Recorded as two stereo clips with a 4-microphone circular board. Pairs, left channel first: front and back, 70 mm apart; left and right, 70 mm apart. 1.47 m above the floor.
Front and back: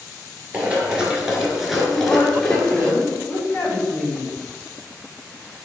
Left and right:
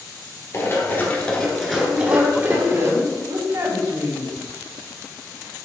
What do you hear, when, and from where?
0.5 s running footsteps: 115° left, 1.8 m; by 2.9 s 75° right, 1.9 m
1.9 s a woman speaking: 75° right, 3 m